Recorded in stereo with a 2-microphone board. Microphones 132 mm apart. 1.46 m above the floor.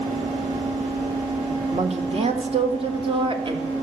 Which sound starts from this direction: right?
A woman speaking, at 1.7 s.